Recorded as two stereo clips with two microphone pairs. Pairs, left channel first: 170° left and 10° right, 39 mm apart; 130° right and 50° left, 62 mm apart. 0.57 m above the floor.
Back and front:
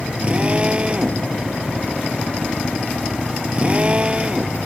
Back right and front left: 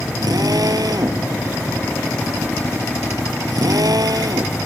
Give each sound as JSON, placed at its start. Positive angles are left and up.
{"t": 0.2, "sound": "a drill", "azimuth_deg": 50}